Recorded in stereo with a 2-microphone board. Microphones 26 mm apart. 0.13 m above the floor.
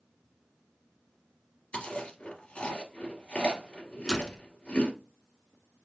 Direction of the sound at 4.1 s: 5° right (ahead or behind).